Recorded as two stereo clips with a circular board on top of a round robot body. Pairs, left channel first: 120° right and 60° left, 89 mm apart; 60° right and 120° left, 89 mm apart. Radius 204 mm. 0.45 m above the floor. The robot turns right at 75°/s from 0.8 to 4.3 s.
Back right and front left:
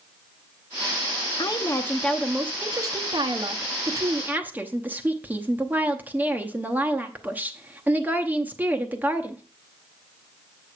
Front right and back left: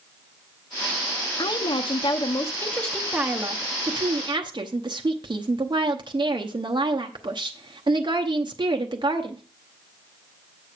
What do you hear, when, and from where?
1.4 s a woman speaking: 90° right, 1.1 m; by 9.4 s 125° left, 1.1 m